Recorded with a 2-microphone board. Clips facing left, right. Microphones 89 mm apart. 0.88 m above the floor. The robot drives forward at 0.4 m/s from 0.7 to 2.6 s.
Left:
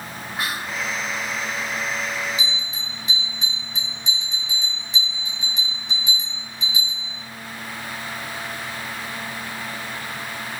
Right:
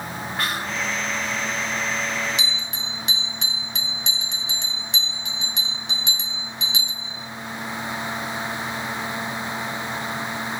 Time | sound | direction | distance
0.4 | whispering | 10° left (ahead or behind) | 1.2 m
2.4 | a bell | 75° right (ahead or behind) | 1.0 m